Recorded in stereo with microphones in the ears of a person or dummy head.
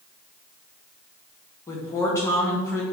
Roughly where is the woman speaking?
Centre.